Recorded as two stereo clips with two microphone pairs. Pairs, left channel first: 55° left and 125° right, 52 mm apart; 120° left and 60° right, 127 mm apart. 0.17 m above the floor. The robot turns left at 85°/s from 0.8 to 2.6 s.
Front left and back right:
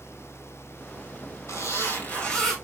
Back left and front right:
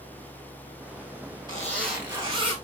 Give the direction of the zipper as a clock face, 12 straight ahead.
10 o'clock.